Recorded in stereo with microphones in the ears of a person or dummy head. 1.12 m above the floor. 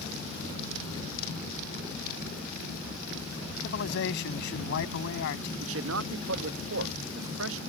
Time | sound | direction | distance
3.6 | a man speaking | 65° left (ahead or behind) | ?
5.6 | a man speaking | 70° right (ahead or behind) | ?